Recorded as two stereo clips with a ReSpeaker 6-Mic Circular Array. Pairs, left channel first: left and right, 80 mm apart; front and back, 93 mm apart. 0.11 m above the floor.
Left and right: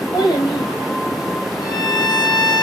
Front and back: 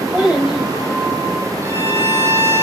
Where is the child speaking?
110° left, 5.5 m.